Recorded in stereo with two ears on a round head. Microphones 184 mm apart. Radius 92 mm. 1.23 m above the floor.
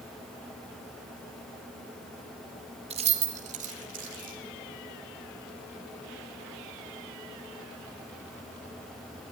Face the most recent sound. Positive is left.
turn(degrees=-45)  # may be behind; listen again after turning